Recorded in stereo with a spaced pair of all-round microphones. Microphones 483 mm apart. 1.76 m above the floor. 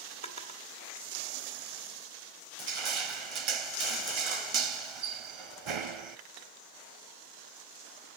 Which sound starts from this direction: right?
Crushing, at 2.6 s.